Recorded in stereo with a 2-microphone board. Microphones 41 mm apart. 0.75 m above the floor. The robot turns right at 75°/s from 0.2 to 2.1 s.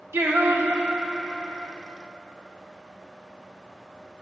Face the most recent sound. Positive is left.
turn(degrees=60)